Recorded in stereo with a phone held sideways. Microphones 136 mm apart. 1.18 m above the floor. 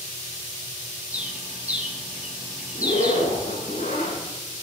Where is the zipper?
90° left, 9 m.